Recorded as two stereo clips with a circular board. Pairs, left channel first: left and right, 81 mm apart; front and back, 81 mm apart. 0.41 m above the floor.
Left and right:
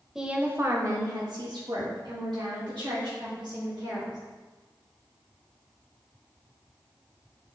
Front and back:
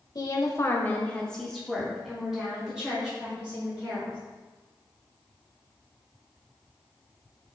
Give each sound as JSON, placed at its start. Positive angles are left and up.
{"t": 0.1, "sound": "a woman speaking", "azimuth_deg": -5, "distance_m": 1.3}